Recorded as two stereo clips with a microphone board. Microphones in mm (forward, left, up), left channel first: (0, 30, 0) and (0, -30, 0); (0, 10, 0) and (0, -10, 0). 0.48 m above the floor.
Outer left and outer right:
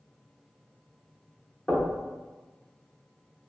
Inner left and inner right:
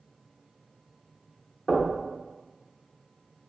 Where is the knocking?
25° left (ahead or behind), 1.0 m.